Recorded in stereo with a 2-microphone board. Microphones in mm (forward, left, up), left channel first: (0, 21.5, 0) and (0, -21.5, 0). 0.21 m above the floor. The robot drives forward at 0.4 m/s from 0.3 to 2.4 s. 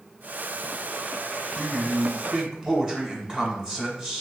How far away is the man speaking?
About 1.4 m.